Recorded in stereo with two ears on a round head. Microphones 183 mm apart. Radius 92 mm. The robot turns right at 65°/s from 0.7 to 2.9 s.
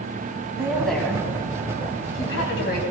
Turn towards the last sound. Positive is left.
turn(degrees=135)